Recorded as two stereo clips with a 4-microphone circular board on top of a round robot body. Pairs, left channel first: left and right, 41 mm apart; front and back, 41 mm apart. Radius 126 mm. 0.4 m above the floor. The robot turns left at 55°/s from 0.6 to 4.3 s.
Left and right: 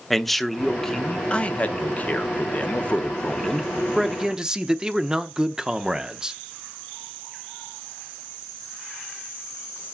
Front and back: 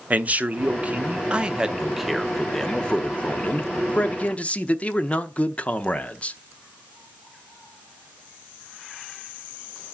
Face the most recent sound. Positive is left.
turn(degrees=-25)